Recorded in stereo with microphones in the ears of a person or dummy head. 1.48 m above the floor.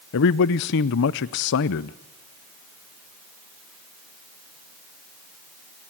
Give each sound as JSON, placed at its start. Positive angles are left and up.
{"t": 0.1, "sound": "a man speaking", "side_deg": 65, "distance_m": 0.6}